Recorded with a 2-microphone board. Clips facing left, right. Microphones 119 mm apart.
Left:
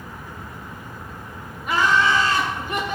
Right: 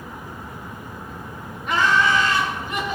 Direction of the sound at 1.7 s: 5° left (ahead or behind).